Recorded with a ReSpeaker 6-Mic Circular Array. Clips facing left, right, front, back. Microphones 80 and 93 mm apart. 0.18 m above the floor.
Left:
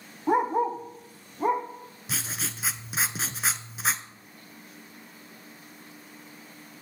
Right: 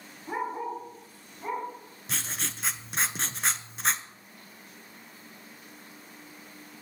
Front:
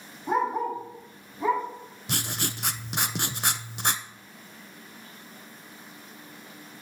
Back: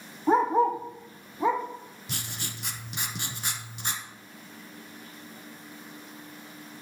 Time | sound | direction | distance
0.3 | a dog barking | 120° left | 2 m
2.1 | writing | 5° left | 0.6 m